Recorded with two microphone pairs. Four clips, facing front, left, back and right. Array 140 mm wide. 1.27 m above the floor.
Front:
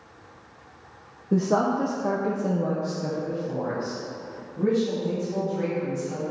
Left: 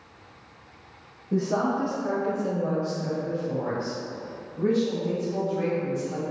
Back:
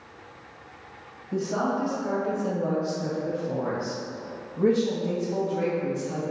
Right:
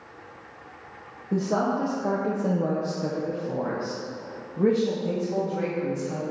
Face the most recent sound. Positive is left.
turn(degrees=-115)